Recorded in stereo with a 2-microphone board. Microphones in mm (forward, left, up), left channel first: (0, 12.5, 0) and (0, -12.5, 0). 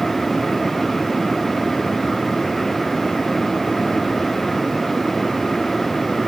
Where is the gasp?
No gasp in this recording.